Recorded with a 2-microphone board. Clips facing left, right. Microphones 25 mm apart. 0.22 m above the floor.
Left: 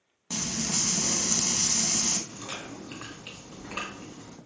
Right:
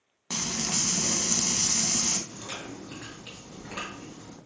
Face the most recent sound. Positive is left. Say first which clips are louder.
# even
turn(degrees=30)  # may be behind; listen again after turning